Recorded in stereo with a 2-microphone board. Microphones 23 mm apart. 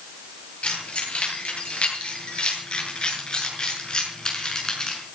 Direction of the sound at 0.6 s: 55° left (ahead or behind).